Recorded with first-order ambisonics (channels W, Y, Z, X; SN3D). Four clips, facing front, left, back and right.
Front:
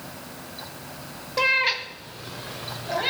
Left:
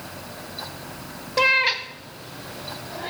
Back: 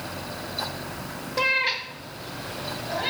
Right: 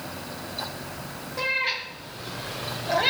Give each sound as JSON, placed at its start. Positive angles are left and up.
{"t": 1.4, "sound": "a cat meowing", "azimuth_deg": 80, "distance_m": 1.2}